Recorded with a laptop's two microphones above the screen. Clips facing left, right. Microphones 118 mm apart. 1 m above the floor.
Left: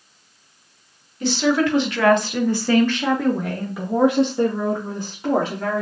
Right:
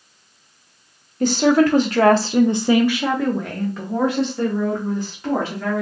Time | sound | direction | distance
1.2 | a woman speaking | 45° right (ahead or behind) | 0.8 m